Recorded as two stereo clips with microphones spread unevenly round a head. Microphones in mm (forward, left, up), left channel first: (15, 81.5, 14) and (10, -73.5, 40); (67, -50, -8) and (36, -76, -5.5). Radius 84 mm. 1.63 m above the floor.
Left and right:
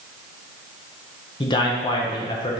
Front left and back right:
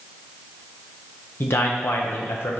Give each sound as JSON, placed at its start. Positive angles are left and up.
{"t": 1.4, "sound": "a man speaking", "azimuth_deg": 25, "distance_m": 0.6}